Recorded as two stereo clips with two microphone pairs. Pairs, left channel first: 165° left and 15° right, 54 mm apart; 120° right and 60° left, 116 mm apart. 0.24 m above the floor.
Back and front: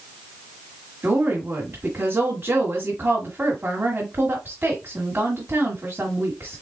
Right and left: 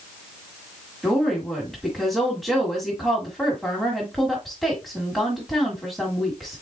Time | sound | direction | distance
1.0 | a woman speaking | 30° right | 1.5 m